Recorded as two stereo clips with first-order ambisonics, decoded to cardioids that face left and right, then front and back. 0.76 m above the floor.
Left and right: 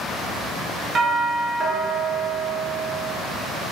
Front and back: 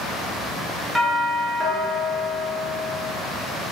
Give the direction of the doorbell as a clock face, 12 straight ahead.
3 o'clock.